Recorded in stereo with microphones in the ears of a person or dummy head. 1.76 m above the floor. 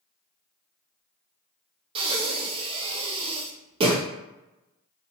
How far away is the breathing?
About 0.6 m.